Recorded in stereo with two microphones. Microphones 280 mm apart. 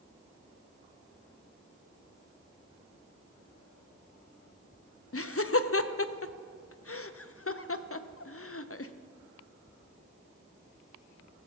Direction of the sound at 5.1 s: 55° left (ahead or behind).